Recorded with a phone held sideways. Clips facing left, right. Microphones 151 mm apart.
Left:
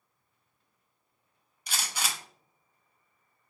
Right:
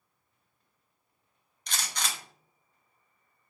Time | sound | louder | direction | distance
1.7 | a gunshot | left 1 dB | 5° left (ahead or behind) | 0.5 m